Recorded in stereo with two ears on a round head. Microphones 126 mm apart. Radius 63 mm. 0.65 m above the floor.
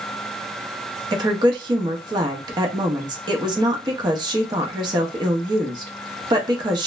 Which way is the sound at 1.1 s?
30° right (ahead or behind).